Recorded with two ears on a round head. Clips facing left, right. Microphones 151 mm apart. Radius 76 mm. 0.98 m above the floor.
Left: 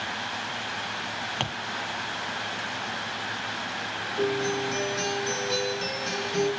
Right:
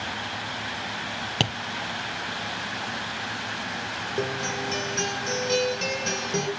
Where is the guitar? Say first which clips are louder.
Left 4 dB; 35° right (ahead or behind), 3 m.